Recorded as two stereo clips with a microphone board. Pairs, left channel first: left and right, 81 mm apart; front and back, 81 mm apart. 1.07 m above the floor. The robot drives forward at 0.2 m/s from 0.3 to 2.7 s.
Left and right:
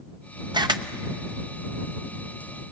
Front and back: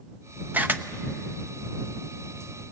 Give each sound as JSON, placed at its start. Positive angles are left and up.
{"t": 0.5, "sound": "a camera shutter", "azimuth_deg": -115, "distance_m": 0.8}